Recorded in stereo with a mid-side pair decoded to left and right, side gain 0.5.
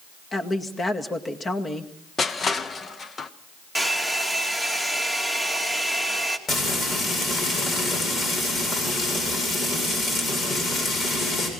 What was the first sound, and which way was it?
A woman speaking, 30° left.